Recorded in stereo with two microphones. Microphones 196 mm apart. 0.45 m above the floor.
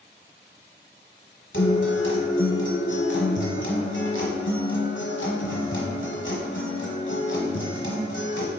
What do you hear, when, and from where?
1.5 s a guitar: 85° left, 1.1 m